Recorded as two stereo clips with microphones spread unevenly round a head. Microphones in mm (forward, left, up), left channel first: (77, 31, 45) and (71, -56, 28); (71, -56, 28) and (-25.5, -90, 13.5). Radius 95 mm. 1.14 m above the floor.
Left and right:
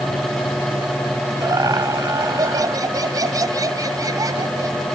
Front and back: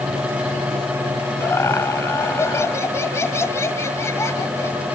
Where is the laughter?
45° right.